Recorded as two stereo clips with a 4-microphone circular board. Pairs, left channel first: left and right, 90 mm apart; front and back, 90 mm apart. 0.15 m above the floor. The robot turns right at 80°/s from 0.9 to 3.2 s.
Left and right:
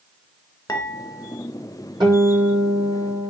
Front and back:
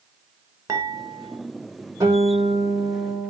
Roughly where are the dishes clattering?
Behind left.